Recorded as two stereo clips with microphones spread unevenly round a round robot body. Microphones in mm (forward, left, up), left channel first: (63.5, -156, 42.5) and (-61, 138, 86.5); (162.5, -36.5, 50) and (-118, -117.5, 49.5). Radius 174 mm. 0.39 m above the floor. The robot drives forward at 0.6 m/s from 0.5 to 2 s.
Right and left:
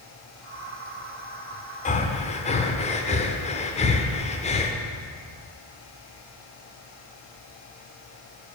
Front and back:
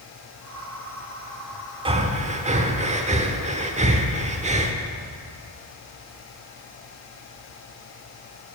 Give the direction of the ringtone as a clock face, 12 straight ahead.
No ringtone in this recording.